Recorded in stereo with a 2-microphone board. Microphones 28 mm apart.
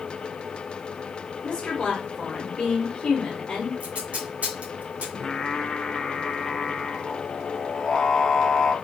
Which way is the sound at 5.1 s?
25° left (ahead or behind).